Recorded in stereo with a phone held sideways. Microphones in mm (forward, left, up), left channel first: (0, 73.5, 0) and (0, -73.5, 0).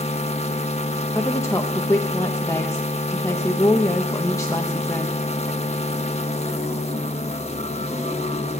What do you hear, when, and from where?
0.0 s a machine running: 45° left (ahead or behind), 1.1 m
1.1 s a woman speaking: 20° left (ahead or behind), 0.8 m